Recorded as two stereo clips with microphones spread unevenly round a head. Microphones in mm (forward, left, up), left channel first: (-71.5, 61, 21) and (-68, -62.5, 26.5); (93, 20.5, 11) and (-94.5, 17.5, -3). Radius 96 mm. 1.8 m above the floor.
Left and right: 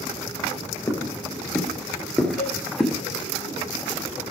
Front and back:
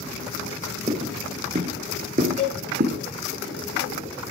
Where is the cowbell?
45° left, 4 m.